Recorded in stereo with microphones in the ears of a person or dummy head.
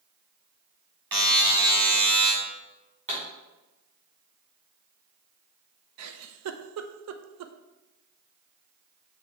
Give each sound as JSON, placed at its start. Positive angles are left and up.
{"t": 1.1, "sound": "a buzzer", "side_deg": -15, "distance_m": 2.5}
{"t": 3.1, "sound": "a pop", "side_deg": -30, "distance_m": 3.0}
{"t": 6.0, "sound": "a giggle", "side_deg": -90, "distance_m": 0.5}